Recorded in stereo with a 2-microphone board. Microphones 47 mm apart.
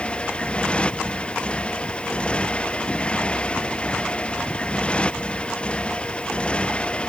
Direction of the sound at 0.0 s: 25° left (ahead or behind).